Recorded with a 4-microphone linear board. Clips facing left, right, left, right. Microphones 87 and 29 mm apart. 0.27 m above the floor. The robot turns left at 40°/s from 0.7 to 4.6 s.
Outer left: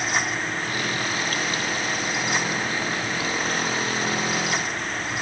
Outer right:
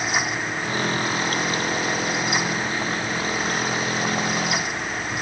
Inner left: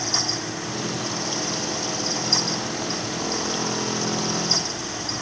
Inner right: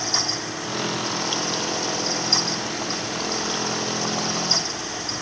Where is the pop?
No pop in this recording.